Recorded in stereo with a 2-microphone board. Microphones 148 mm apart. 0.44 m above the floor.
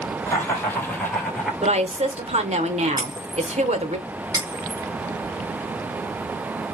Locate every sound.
0.3 s laughter: 20° left (ahead or behind), 3 m; by 1.5 s 5° left (ahead or behind), 1.8 m
1.6 s a woman speaking: 50° right (ahead or behind), 1.0 m
3.0 s breaking glass: 25° right (ahead or behind), 2.5 m